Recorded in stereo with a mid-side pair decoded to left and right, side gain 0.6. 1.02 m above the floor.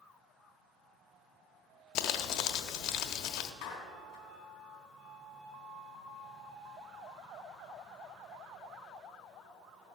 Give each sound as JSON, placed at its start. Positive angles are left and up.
{"t": 1.9, "sound": "crumpling", "azimuth_deg": 65, "distance_m": 1.2}
{"t": 3.6, "sound": "a clap", "azimuth_deg": 60, "distance_m": 3.5}